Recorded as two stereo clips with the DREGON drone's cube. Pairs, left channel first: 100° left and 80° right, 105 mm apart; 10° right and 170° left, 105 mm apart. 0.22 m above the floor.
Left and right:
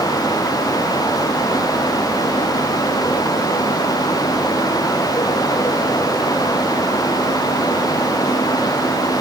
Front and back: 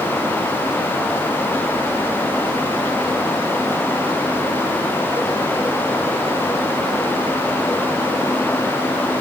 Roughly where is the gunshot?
No gunshot in this recording.